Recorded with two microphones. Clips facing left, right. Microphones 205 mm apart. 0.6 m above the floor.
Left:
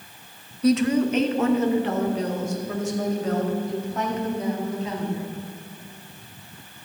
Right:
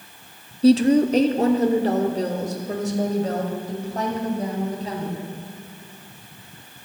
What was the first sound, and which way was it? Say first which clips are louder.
A woman speaking: right 5 dB; 30° right (ahead or behind).